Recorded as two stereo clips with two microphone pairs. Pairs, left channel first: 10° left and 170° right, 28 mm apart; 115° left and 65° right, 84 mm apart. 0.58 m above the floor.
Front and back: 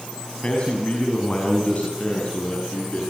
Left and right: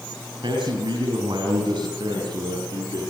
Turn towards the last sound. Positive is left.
turn(degrees=-30)